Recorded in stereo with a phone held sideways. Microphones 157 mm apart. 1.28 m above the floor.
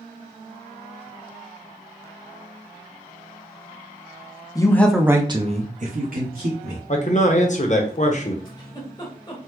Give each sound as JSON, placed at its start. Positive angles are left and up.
{"t": 4.5, "sound": "a man speaking", "side_deg": 25, "distance_m": 0.6}
{"t": 6.9, "sound": "a man speaking", "side_deg": 50, "distance_m": 0.7}
{"t": 8.4, "sound": "a giggle", "side_deg": 25, "distance_m": 1.1}